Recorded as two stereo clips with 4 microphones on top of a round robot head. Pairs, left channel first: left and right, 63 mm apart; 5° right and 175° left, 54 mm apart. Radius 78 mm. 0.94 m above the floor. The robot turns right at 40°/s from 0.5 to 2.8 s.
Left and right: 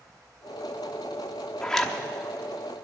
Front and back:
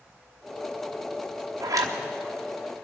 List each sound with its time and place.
1.6 s a zipper: 165° left, 1.0 m; by 2.0 s straight behind, 1.0 m